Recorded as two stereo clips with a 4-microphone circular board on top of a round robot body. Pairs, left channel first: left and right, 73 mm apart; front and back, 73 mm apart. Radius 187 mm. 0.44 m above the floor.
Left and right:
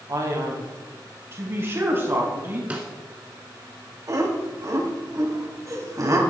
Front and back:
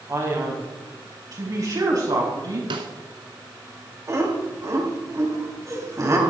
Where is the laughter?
135° right, 3.5 m.